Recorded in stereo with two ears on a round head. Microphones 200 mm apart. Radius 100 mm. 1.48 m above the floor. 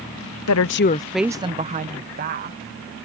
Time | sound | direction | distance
0.5 | a woman speaking | 75° left (ahead or behind) | ?